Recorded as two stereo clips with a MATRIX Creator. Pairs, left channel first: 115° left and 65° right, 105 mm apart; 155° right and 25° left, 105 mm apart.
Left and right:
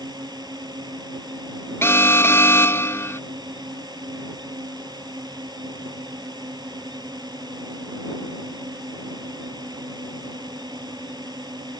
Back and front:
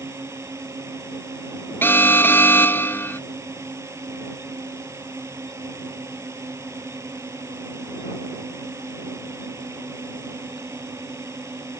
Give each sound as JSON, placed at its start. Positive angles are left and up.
{"t": 0.0, "sound": "a drone", "azimuth_deg": -35}
{"t": 1.8, "sound": "an alarm", "azimuth_deg": 155}